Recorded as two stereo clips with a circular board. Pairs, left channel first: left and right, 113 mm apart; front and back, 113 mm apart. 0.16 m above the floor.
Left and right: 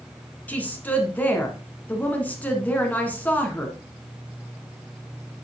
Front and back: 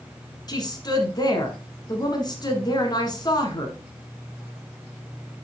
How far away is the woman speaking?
About 1.6 m.